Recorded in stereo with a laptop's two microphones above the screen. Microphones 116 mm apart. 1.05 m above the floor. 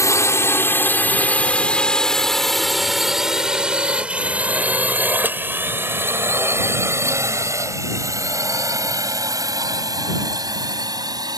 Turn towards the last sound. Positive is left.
turn(degrees=-35)  # may be behind; listen again after turning